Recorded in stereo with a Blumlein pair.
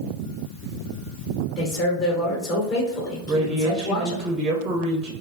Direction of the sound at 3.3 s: 15° right.